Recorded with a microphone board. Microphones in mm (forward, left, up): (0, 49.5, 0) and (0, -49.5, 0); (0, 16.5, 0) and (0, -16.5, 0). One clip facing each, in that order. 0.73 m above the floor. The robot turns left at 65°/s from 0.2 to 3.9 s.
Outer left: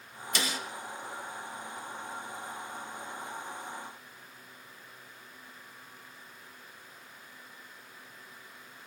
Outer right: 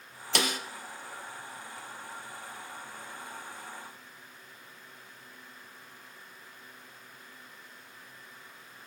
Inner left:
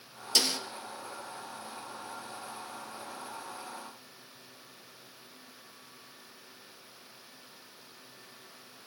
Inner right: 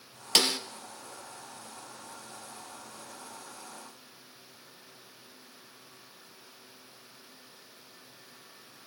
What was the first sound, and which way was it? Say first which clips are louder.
A snare drum: outer right 4 dB, inner right 3 dB; 60° right (ahead or behind).